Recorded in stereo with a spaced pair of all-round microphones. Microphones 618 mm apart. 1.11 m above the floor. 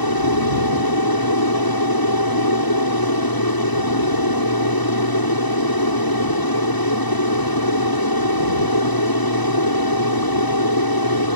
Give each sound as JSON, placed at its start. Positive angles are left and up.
{"t": 0.0, "sound": "an aircraft", "side_deg": 35}